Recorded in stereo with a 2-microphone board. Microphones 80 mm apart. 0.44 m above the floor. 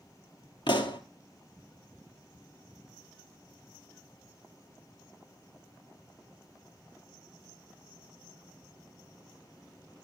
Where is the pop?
70° left (ahead or behind), 1.6 m.